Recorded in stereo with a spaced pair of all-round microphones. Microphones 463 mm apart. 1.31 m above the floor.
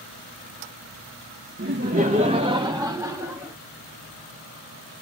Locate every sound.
1.6 s laughter: 30° right (ahead or behind), 0.9 m; by 3.6 s centre (ahead or behind), 2.0 m